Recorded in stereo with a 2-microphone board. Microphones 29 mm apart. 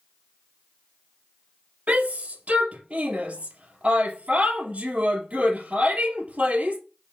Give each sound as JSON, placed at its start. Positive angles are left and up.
{"t": 1.9, "sound": "a shout", "side_deg": -55, "distance_m": 2.5}